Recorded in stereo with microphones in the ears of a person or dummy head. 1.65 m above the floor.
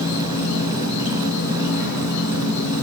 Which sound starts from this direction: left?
An insect, at 0.0 s.